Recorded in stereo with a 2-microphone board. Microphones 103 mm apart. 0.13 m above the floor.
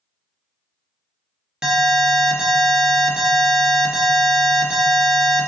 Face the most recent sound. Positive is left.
turn(degrees=-10)  # may be behind; listen again after turning